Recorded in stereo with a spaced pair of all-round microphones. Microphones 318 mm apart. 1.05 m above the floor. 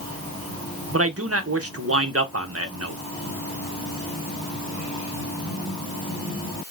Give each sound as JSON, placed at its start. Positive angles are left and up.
{"t": 0.9, "sound": "a man speaking", "side_deg": -45, "distance_m": 1.0}